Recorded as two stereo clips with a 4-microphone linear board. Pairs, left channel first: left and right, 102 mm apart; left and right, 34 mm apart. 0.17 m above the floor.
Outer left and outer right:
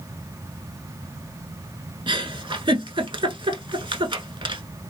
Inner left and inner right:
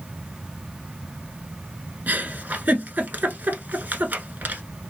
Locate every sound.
2.1 s a giggle: 55° right (ahead or behind), 0.7 m